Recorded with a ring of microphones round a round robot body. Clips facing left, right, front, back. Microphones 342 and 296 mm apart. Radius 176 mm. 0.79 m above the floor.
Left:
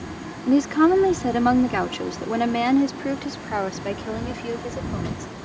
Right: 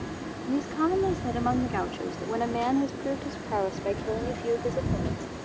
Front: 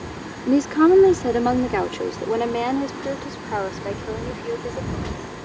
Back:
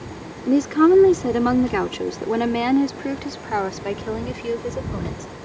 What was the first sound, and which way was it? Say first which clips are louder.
A woman speaking: left 10 dB, even; 90° left.